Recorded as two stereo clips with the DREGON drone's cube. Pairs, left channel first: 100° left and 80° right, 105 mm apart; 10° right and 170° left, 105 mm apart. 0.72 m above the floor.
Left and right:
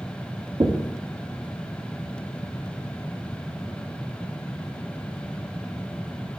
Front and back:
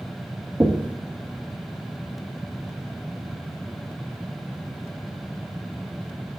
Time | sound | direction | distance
0.6 | knocking | 120° right | 0.9 m